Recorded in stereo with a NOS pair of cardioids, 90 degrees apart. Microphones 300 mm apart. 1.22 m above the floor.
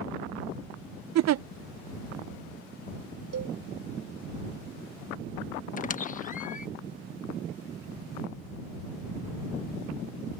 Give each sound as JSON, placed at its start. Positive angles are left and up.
{"t": 1.1, "sound": "a giggle", "azimuth_deg": -60}
{"t": 3.3, "sound": "a cowbell", "azimuth_deg": -55}
{"t": 5.8, "sound": "a squeak", "azimuth_deg": 25}